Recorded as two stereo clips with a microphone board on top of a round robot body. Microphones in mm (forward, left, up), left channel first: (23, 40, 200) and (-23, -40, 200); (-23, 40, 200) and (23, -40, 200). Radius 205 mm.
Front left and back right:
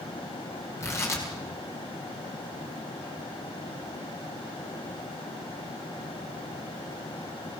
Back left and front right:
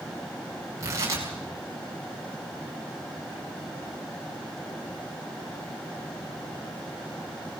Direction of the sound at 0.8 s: Straight ahead.